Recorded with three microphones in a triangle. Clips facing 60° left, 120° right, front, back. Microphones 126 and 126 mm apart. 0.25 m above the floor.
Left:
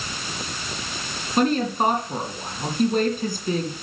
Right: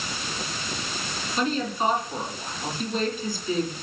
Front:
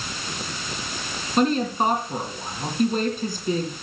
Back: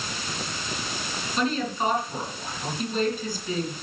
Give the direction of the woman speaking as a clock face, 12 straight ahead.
11 o'clock.